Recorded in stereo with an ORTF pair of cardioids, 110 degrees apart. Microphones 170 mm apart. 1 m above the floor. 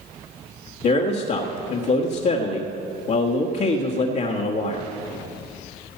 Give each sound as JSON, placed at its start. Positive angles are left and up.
{"t": 0.8, "sound": "a man speaking", "azimuth_deg": 60, "distance_m": 1.5}